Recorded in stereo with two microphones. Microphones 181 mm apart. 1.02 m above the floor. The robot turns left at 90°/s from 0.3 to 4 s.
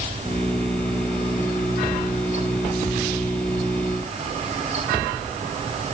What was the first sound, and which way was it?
Only background noise.